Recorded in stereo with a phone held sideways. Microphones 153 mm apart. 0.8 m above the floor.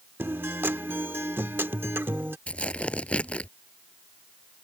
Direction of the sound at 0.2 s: 15° right (ahead or behind).